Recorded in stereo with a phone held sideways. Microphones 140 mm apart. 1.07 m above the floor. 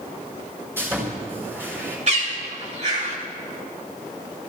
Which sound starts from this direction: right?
A bird, at 2.1 s.